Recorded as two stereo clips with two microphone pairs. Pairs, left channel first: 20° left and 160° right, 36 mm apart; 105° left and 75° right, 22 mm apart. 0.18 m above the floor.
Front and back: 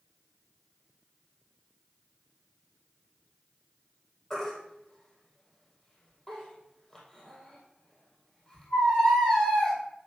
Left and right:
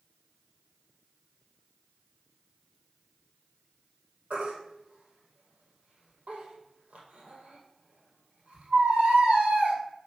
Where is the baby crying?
55° right, 2 m.